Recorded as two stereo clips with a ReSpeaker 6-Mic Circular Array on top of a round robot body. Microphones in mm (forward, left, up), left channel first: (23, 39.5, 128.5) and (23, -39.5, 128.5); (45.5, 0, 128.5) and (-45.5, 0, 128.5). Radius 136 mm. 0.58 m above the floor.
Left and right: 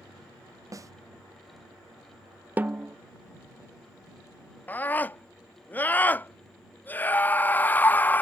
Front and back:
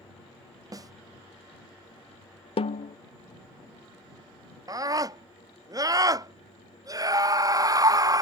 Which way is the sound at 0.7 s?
135° right.